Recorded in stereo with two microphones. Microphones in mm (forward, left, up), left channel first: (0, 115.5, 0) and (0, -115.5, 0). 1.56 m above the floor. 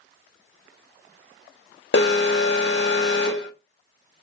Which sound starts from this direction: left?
An alarm, at 1.9 s.